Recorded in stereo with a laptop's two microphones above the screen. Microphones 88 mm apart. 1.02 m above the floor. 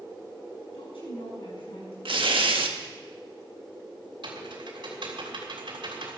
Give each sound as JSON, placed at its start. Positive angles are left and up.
{"t": 0.7, "sound": "a woman speaking", "side_deg": 85, "distance_m": 8.5}
{"t": 2.0, "sound": "tearing paper", "side_deg": -75, "distance_m": 1.5}
{"t": 4.2, "sound": "typing on a keyboard", "side_deg": -70, "distance_m": 3.0}